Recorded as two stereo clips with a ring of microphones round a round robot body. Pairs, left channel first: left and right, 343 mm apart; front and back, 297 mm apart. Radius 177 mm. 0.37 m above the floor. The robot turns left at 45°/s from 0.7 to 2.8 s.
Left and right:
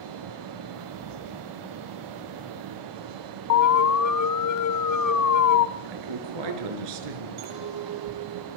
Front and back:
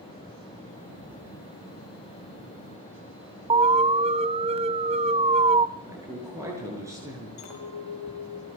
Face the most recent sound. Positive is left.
turn(degrees=-45)